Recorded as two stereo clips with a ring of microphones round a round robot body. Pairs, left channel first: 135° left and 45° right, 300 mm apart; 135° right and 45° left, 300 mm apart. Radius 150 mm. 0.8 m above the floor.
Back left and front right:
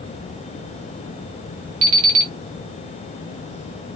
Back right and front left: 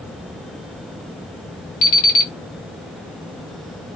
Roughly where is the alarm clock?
Right.